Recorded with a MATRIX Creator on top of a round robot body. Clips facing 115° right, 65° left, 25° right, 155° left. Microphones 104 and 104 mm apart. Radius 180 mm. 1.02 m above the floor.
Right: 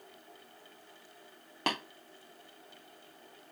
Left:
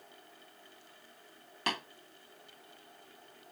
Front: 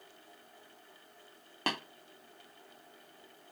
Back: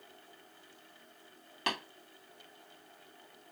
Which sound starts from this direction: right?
Tapping, at 1.7 s.